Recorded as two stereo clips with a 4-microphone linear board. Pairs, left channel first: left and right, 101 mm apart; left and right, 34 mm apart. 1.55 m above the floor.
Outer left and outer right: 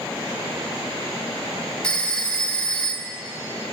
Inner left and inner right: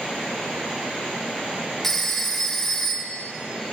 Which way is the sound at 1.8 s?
10° left (ahead or behind).